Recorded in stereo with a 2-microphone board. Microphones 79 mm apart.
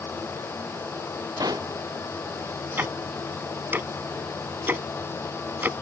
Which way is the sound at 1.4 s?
55° right (ahead or behind).